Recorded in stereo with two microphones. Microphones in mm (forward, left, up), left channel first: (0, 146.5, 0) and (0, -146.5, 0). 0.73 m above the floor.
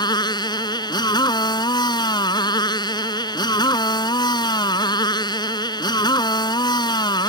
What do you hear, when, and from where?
0.0 s a motorcycle: 15° left (ahead or behind)